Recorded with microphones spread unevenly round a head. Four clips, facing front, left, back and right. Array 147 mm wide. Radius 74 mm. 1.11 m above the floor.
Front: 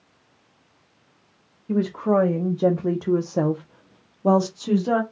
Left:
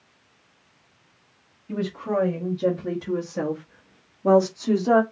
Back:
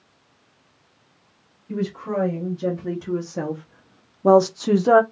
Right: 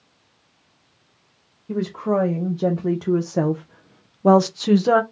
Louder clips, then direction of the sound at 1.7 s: Right 4 dB, front 5 dB; 30° right.